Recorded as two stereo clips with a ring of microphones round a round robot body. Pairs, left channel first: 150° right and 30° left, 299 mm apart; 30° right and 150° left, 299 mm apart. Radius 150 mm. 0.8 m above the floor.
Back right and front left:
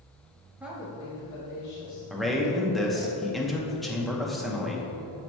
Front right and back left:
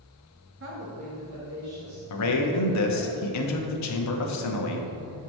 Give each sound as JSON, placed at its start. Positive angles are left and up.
{"t": 0.6, "sound": "a woman speaking", "azimuth_deg": 110, "distance_m": 1.2}
{"t": 2.1, "sound": "a man speaking", "azimuth_deg": -60, "distance_m": 0.8}